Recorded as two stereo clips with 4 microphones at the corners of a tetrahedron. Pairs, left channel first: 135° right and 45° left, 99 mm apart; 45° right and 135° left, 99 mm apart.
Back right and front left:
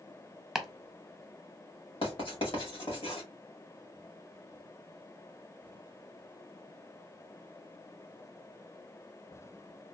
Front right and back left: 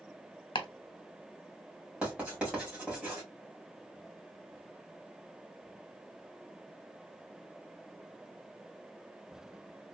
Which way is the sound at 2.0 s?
145° right.